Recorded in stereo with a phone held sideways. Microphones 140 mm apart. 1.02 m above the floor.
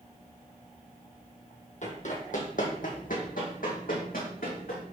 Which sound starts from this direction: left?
Running footsteps, at 1.8 s.